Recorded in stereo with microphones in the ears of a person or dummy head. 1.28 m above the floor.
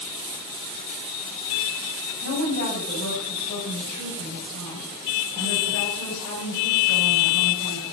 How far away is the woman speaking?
About 6.5 m.